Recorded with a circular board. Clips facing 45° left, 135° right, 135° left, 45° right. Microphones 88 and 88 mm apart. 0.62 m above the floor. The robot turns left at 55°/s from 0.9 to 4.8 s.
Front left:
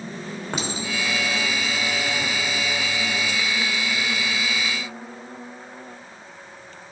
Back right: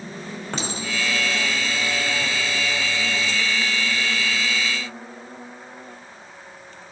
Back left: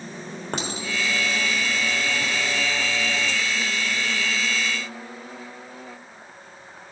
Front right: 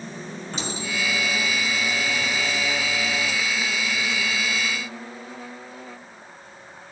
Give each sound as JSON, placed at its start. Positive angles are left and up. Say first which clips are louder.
{"t": 0.5, "sound": "a clink", "louder": "even, back left 1 dB", "azimuth_deg": 120, "distance_m": 1.7}